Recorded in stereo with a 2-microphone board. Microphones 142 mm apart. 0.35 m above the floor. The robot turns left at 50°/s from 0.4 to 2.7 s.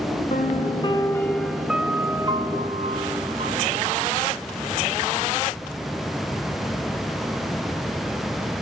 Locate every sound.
0.3 s a piano: 60° left, 0.8 m; by 4.1 s 55° right, 0.8 m